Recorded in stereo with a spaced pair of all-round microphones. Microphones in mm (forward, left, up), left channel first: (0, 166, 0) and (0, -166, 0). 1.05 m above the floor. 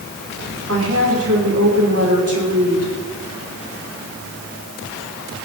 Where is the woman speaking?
45° right (ahead or behind), 3 m.